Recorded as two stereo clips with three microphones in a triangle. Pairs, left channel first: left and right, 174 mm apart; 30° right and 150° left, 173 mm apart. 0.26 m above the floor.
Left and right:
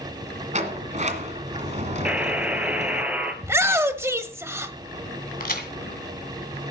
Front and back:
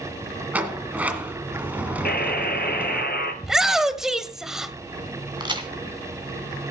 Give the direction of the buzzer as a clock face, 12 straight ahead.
12 o'clock.